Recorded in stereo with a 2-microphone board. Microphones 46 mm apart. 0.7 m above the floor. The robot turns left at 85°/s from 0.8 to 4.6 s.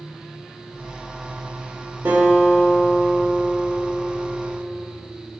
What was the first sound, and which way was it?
A guitar, 100° right.